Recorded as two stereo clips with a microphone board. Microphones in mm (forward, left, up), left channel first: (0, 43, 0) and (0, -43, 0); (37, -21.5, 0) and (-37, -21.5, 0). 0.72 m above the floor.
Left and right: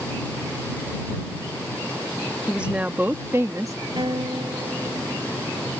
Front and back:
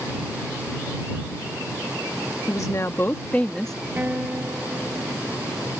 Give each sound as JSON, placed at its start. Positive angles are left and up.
{"t": 2.5, "sound": "a woman speaking", "azimuth_deg": -15}
{"t": 4.0, "sound": "a guitar", "azimuth_deg": -110}